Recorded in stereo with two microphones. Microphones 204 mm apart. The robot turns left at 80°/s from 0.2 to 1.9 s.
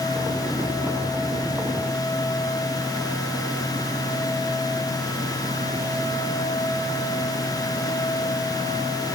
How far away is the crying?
I don't hear crying.